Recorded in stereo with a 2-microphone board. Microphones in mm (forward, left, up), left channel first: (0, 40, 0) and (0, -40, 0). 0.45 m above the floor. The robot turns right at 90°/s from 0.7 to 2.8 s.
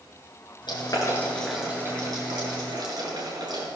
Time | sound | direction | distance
0.7 | boiling | 70° left (ahead or behind) | 6.5 m